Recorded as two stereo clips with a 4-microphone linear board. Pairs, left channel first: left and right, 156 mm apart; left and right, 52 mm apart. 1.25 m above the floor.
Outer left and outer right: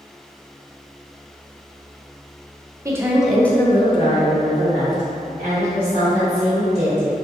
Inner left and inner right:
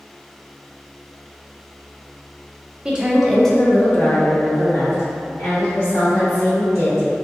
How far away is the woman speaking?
About 0.8 m.